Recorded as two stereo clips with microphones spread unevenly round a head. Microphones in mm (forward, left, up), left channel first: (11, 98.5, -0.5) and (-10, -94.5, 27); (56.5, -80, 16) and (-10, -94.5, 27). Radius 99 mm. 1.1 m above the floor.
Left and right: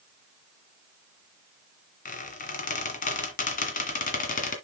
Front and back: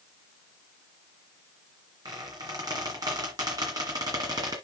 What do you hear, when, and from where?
2.0 s a squeak: 135° left, 2 m